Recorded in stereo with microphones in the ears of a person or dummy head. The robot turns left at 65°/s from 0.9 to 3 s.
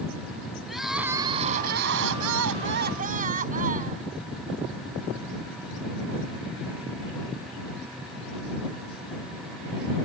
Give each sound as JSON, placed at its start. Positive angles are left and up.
{"t": 0.7, "sound": "crying", "azimuth_deg": 0}